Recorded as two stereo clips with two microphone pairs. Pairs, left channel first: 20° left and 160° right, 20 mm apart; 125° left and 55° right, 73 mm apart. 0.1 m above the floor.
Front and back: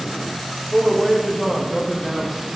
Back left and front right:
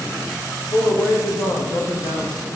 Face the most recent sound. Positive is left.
turn(degrees=120)